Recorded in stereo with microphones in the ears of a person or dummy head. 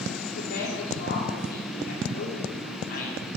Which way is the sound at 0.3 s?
60° left (ahead or behind).